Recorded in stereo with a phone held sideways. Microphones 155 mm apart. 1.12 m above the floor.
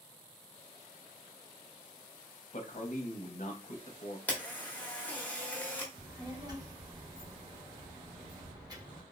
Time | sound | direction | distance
2.5 | a man speaking | 55° left (ahead or behind) | 0.6 m
4.3 | a camera shutter | 10° left (ahead or behind) | 0.8 m
5.9 | a child speaking | 25° right (ahead or behind) | 0.9 m